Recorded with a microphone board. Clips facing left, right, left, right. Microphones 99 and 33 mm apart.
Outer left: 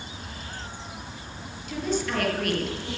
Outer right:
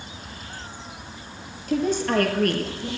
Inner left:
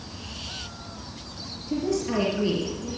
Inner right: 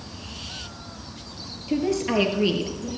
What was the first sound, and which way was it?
A woman speaking, 45° right (ahead or behind).